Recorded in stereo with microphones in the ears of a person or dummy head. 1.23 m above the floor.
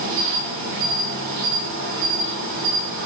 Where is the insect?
70° right (ahead or behind), 6.5 m.